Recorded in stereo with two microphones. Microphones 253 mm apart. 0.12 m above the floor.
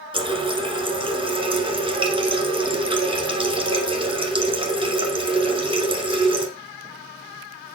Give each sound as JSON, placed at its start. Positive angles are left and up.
{"t": 0.1, "sound": "a running tap", "side_deg": -20, "distance_m": 1.0}